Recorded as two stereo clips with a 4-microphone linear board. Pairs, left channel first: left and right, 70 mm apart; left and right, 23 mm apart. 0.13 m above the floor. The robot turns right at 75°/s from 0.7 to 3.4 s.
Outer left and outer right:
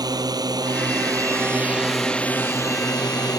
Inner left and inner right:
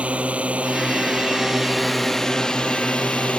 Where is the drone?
95° right; by 3.4 s 110° left.